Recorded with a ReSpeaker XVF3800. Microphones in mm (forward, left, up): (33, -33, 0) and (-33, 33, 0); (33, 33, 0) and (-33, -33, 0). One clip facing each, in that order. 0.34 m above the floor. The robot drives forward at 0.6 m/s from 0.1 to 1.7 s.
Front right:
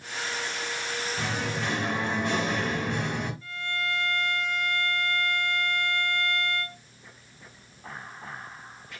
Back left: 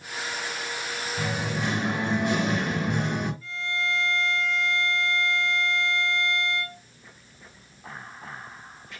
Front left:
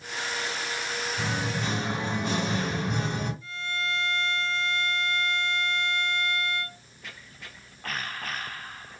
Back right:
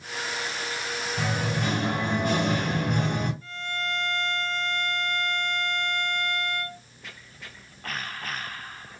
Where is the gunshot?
I don't hear a gunshot.